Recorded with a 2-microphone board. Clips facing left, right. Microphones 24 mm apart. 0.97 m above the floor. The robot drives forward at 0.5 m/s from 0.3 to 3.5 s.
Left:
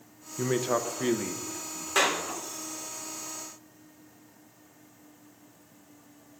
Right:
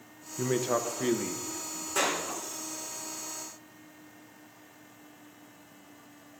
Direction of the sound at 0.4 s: 15° left (ahead or behind).